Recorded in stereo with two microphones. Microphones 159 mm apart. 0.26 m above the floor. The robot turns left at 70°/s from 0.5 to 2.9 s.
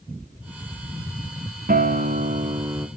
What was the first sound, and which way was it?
A guitar, 80° right.